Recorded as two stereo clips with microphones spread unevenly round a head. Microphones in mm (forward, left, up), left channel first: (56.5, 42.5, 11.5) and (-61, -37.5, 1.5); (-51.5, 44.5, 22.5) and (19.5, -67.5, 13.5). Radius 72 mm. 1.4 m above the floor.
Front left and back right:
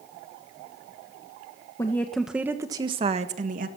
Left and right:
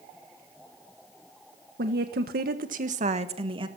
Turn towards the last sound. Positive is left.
turn(degrees=-110)